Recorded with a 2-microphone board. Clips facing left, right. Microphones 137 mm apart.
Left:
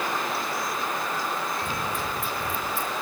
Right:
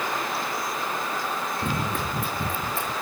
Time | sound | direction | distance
1.6 | running footsteps | 55° right (ahead or behind) | 2.5 m